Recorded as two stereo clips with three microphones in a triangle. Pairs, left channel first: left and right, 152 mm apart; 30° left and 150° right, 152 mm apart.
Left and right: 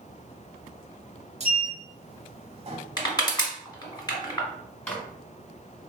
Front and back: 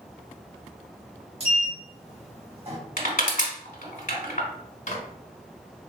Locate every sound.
1.4 s a sliding door: 115° right, 0.7 m
3.0 s crushing: 30° left, 1.3 m
4.9 s a microwave: 10° left, 1.5 m